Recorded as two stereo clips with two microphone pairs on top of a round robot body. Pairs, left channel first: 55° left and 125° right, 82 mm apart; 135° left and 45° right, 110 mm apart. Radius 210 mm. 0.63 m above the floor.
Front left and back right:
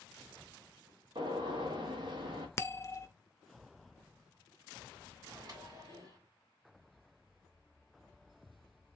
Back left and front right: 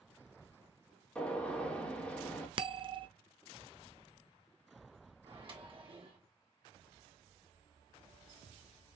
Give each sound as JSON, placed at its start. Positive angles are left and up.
{"t": 1.1, "sound": "a gunshot", "azimuth_deg": -145, "distance_m": 1.6}
{"t": 2.6, "sound": "a bell", "azimuth_deg": 0, "distance_m": 0.6}
{"t": 5.2, "sound": "a microwave", "azimuth_deg": -80, "distance_m": 1.8}